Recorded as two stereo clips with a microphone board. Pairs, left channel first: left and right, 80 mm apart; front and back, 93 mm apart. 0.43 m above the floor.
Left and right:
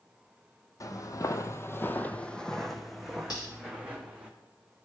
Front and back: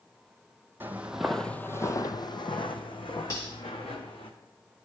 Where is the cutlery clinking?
55° left, 3.5 m.